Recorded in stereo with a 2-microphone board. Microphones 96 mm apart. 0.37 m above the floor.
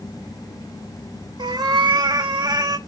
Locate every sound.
1.4 s a cat meowing: 45° right (ahead or behind), 0.7 m